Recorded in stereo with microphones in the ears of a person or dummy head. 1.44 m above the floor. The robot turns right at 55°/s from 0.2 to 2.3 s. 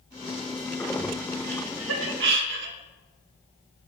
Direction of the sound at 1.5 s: 65° right (ahead or behind).